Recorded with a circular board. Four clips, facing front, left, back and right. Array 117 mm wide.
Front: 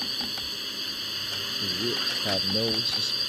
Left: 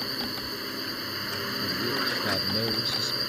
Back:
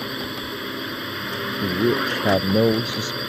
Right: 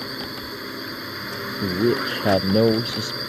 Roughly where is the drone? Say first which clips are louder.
Right 3 dB, back 9 dB; behind.